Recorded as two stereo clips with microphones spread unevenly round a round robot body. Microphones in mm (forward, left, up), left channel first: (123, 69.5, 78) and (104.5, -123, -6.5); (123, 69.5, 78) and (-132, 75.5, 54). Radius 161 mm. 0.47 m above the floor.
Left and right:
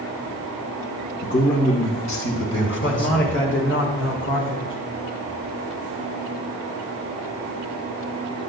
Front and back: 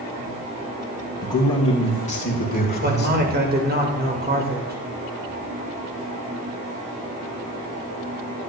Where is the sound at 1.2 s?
75° left, 3 m; by 3.3 s 45° left, 2.5 m.